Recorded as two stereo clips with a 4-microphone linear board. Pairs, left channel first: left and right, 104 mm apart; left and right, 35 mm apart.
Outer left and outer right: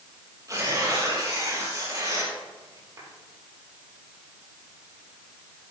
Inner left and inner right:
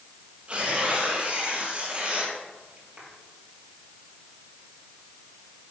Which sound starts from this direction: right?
Tearing paper, at 0.5 s.